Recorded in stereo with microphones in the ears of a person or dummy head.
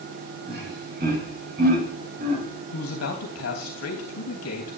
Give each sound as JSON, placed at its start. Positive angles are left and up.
{"t": 0.5, "sound": "laughter", "side_deg": -55, "distance_m": 7.0}
{"t": 2.7, "sound": "a man speaking", "side_deg": 80, "distance_m": 3.0}